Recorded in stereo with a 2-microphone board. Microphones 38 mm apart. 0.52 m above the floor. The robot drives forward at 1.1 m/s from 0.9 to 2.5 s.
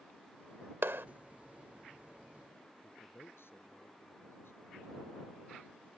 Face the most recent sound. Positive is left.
turn(degrees=65)  # may be behind; listen again after turning